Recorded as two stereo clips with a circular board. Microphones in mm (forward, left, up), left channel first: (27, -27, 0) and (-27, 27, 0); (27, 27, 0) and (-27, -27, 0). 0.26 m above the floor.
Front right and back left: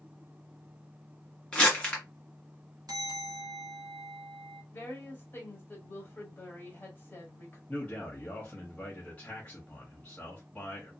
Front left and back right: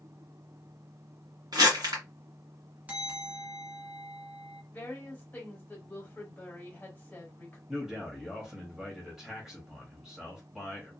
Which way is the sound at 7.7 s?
70° right.